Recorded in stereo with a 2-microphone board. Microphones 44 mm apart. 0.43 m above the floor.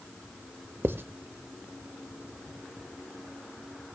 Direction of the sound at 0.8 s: 55° right (ahead or behind).